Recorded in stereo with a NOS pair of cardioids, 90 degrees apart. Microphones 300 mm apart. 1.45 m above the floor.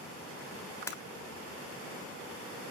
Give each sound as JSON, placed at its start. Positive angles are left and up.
{"t": 0.9, "sound": "breaking glass", "azimuth_deg": 10, "distance_m": 3.0}